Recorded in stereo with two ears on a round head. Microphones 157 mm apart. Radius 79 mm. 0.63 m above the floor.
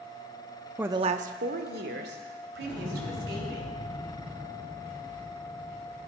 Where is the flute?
I don't hear a flute.